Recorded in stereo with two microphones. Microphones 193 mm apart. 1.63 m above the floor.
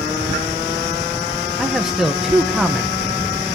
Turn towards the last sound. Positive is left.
turn(degrees=0)  # may be behind; listen again after turning